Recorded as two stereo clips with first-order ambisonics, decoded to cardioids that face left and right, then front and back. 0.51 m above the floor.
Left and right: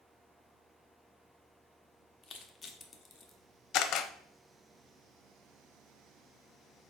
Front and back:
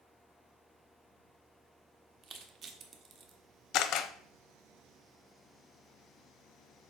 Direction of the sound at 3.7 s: 45° left.